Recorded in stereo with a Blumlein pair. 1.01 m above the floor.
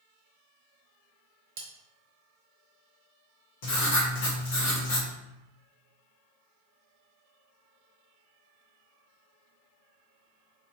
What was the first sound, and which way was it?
Cutlery clinking, 45° right.